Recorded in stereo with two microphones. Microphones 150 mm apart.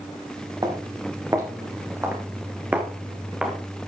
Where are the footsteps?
25° right (ahead or behind), 4 m; by 3.6 s 5° right (ahead or behind), 3 m.